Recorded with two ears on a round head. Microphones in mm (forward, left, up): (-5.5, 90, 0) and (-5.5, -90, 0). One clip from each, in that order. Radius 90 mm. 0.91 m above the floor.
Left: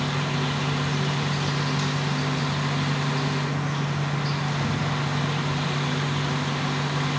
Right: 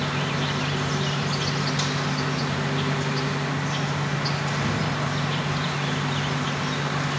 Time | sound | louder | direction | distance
0.0 | an insect | right 1 dB | 30° right (ahead or behind) | 0.8 m